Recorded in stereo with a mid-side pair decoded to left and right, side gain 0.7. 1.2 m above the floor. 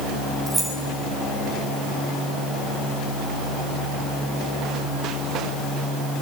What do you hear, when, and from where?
0.5 s keys jangling: 20° right, 6 m